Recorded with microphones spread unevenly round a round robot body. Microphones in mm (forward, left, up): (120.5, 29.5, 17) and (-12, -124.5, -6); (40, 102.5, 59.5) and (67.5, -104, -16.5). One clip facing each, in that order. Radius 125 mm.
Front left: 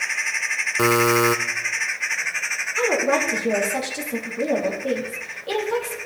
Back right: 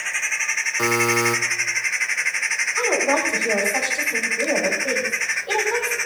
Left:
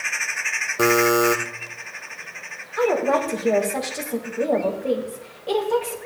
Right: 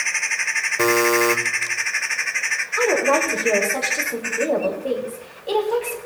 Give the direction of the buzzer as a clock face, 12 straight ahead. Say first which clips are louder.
Front left 4 dB, even; 11 o'clock.